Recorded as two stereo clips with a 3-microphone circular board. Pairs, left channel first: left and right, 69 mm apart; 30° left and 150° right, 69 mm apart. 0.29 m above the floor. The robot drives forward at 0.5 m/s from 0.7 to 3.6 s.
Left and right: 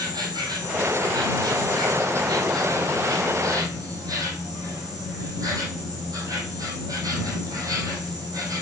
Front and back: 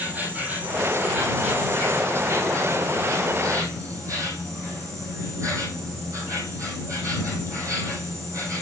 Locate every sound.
0.0 s an insect: 85° right, 3 m; by 8.6 s 115° right, 3 m